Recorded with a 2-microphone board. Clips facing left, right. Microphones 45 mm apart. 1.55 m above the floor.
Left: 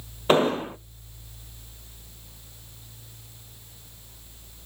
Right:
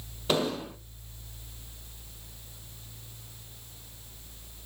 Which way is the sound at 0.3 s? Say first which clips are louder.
Left 8 dB; 35° left (ahead or behind).